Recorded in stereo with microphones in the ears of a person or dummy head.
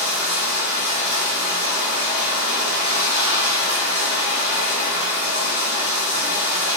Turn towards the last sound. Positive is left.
turn(degrees=-35)  # may be behind; listen again after turning